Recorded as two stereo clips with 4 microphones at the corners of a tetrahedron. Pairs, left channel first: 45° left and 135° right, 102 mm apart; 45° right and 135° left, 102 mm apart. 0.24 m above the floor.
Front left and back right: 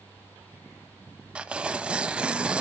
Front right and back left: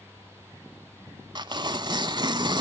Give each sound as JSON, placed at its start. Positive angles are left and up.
{"t": 1.4, "sound": "tearing paper", "azimuth_deg": 145, "distance_m": 0.6}